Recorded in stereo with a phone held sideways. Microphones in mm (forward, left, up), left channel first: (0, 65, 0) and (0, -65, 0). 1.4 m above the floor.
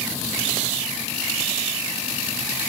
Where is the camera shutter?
No camera shutter in this recording.